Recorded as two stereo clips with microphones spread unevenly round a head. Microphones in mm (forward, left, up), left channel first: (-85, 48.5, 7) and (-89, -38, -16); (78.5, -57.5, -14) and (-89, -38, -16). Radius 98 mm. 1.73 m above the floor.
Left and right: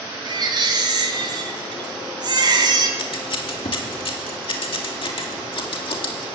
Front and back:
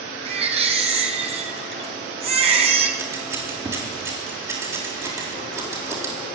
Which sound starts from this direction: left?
Scissors, at 3.0 s.